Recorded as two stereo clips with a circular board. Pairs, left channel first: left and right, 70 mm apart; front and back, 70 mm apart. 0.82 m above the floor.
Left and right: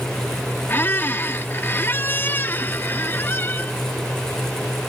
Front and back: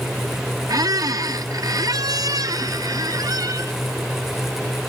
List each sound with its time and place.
0.7 s a squeak: 150° left